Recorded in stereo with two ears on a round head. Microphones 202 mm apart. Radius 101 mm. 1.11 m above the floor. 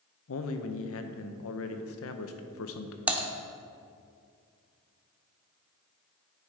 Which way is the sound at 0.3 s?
65° left (ahead or behind).